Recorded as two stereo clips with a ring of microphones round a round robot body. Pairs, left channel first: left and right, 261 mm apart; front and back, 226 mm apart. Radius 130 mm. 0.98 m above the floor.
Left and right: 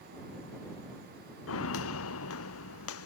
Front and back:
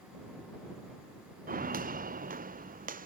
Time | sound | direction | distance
1.5 | footsteps | 130° left | ?